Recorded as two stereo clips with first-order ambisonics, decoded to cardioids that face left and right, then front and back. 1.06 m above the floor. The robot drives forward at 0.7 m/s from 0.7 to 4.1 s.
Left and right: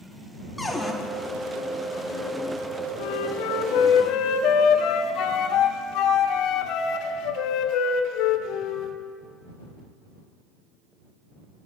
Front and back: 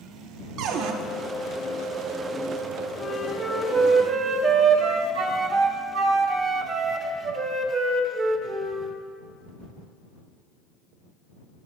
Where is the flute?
75° left, 0.9 m; by 8.9 s 120° left, 1.0 m.